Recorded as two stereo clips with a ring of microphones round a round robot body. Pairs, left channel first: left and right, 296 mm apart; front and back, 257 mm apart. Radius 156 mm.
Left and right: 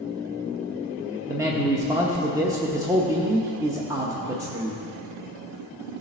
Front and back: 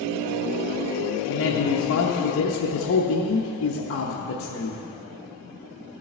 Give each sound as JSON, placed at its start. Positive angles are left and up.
{"t": 1.3, "sound": "a man speaking", "azimuth_deg": -15, "distance_m": 0.9}